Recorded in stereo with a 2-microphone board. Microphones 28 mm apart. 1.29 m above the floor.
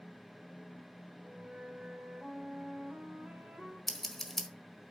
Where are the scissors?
10° left (ahead or behind), 1.3 m.